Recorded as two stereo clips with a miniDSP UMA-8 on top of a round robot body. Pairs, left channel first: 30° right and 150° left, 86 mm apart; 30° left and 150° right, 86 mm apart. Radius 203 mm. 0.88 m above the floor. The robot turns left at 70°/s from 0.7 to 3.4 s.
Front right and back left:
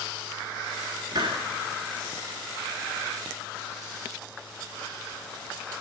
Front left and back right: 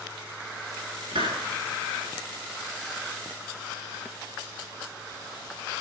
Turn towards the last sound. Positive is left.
turn(degrees=30)